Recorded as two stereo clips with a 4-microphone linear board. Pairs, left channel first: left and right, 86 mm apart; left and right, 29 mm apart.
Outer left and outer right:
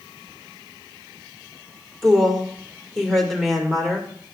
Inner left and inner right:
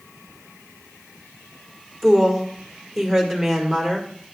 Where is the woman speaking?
5° left (ahead or behind), 1.9 m.